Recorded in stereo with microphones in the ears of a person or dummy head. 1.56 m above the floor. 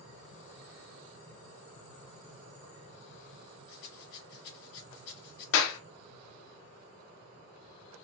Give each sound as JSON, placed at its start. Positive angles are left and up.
{"t": 3.7, "sound": "a rattle", "side_deg": 60, "distance_m": 1.7}
{"t": 5.5, "sound": "a clap", "side_deg": 75, "distance_m": 0.7}